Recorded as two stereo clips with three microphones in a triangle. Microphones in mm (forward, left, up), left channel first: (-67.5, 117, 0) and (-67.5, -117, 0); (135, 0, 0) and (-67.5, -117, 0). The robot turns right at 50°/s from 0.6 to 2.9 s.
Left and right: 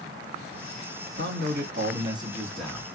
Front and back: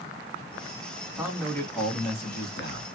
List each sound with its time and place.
1.2 s a man speaking: 70° right, 1.9 m; by 2.9 s 15° left, 1.9 m